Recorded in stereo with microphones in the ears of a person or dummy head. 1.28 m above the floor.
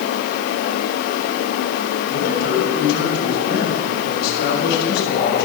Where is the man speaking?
60° left (ahead or behind), 6 m.